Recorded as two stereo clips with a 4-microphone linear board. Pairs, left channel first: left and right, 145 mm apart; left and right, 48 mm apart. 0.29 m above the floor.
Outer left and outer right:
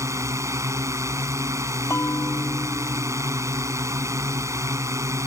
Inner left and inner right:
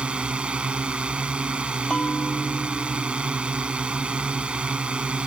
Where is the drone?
20° right (ahead or behind).